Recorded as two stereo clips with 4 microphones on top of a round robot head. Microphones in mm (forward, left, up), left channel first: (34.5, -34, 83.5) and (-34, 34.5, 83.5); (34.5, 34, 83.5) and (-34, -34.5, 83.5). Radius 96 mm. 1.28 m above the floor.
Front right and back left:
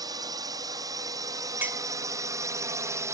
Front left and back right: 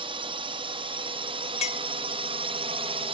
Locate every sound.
0.0 s a drone: 170° right; by 3.1 s 165° right
1.6 s a clink: 60° left